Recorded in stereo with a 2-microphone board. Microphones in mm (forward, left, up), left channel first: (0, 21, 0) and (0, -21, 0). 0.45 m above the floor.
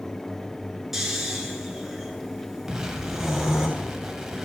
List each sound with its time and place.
0.9 s snoring: 5° right (ahead or behind), 1.6 m
2.7 s an explosion: 15° right (ahead or behind), 1.2 m